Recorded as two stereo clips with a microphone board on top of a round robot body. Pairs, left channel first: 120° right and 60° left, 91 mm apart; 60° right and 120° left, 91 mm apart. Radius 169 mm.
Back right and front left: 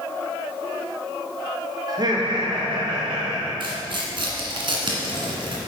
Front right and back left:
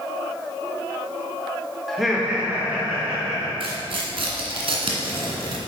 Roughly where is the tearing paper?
Left.